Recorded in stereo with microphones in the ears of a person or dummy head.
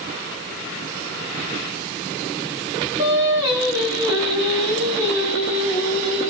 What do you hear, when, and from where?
3.0 s singing: 25° right (ahead or behind), 3.5 m